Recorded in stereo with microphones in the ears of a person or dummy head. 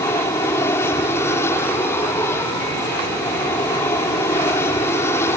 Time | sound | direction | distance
0.0 | an aircraft | 10° left (ahead or behind) | ?